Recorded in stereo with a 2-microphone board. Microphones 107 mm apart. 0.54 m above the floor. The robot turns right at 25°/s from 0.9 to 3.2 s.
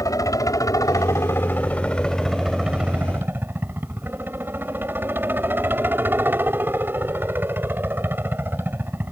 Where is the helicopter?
145° left; by 9.1 s 160° right.